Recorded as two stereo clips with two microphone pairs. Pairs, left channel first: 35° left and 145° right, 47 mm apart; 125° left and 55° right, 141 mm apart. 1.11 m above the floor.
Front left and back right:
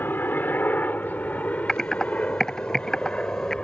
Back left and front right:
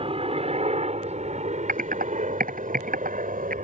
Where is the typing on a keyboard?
45° right.